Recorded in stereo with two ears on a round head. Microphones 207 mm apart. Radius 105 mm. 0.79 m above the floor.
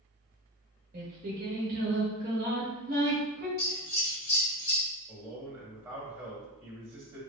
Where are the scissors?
30° left (ahead or behind), 2.0 m.